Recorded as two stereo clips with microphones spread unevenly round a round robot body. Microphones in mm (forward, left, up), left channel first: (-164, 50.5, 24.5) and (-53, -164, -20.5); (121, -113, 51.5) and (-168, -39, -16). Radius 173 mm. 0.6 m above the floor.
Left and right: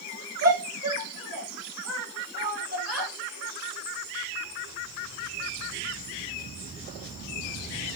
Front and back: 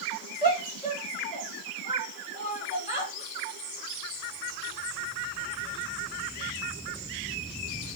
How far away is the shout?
About 7.5 m.